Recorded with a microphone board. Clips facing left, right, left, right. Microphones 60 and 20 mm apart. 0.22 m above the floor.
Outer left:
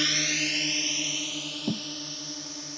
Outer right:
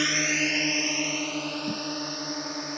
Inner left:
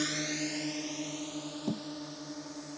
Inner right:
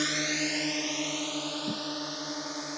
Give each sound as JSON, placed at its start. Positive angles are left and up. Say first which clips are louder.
{"t": 0.0, "sound": "a drone", "louder": "outer right 4 dB, inner right 5 dB", "side_deg": -20}
{"t": 1.7, "sound": "a thud", "louder": "outer left 1 dB, inner right 2 dB", "side_deg": 60}